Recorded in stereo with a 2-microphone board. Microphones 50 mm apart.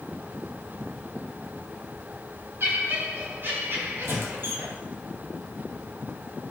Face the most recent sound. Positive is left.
turn(degrees=-50)  # may be behind; listen again after turning